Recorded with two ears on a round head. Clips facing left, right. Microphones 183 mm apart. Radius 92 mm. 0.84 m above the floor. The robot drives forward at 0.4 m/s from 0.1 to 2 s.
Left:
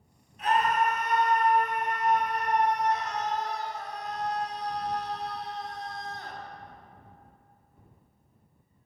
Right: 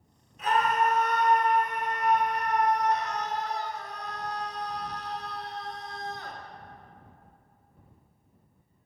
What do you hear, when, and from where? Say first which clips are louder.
0.4 s a scream: even; 80° right, 3 m; by 6.4 s 70° right (ahead or behind), 3 m